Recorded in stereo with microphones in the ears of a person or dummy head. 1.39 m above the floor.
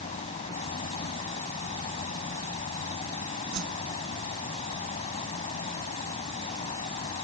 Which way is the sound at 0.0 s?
35° left (ahead or behind).